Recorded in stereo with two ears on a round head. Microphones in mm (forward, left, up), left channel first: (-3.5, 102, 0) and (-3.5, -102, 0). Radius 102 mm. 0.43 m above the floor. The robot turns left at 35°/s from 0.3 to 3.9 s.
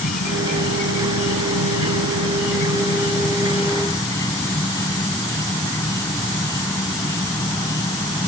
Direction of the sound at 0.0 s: 140° left.